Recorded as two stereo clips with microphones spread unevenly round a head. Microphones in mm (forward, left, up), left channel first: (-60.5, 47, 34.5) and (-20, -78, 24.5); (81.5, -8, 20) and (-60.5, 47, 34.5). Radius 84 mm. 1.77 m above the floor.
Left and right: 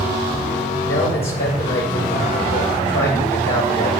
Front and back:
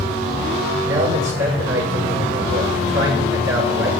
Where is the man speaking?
Straight behind, 8 m.